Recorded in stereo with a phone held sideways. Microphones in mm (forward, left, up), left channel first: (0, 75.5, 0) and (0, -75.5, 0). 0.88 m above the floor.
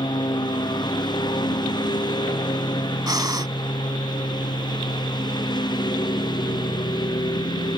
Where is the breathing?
25° right (ahead or behind).